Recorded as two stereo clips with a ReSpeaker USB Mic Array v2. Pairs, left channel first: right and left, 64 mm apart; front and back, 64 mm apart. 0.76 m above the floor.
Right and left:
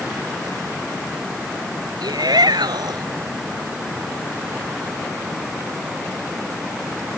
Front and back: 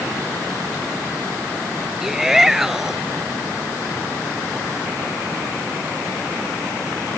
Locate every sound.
2.0 s a shout: 95° left